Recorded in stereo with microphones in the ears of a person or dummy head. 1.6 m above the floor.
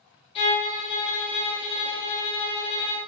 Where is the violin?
30° left (ahead or behind), 0.9 m.